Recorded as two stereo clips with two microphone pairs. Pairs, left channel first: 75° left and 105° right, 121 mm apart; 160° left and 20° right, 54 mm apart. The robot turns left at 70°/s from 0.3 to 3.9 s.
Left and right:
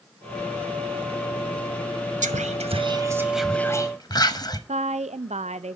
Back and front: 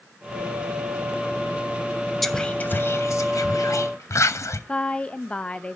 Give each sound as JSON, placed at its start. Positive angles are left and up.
{"t": 2.2, "sound": "whispering", "azimuth_deg": -110, "distance_m": 0.8}
{"t": 4.7, "sound": "a woman speaking", "azimuth_deg": -130, "distance_m": 0.5}